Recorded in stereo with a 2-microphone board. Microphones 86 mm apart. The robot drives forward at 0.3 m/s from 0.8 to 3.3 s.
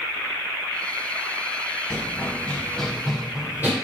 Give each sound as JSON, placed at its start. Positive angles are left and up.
{"t": 1.9, "sound": "running footsteps", "side_deg": 35, "distance_m": 1.9}